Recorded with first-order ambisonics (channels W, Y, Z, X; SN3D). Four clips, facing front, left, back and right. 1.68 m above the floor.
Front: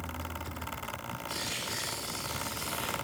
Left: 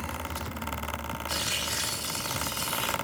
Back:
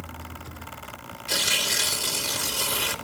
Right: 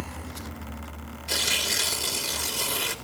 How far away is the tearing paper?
About 2 m.